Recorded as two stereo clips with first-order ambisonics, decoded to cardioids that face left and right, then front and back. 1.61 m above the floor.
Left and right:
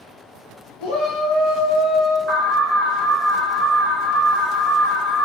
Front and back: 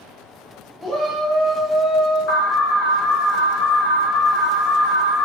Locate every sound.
0.8 s a shout: 90° left, 0.5 m; by 2.2 s 75° left, 1.2 m
2.3 s an alarm: 25° right, 0.7 m